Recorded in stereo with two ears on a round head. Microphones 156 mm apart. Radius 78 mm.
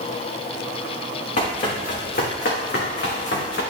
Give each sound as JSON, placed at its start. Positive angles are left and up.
{"t": 1.4, "sound": "running footsteps", "side_deg": 45, "distance_m": 4.0}